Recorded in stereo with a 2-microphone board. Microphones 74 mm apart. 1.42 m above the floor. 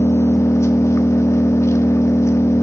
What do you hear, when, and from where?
0.0 s an engine running: 40° left (ahead or behind), 1.3 m